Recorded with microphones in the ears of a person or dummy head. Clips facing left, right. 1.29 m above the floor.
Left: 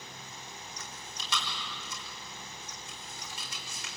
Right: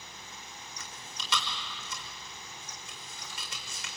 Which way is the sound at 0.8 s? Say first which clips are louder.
Left 1 dB; 60° right (ahead or behind).